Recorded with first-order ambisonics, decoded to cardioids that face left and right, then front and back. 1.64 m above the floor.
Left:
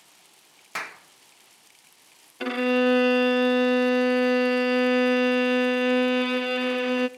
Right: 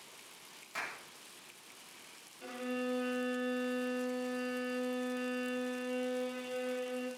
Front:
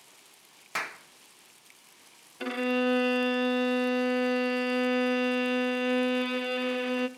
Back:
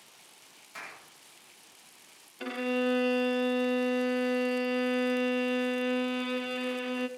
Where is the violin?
75° left, 0.7 m.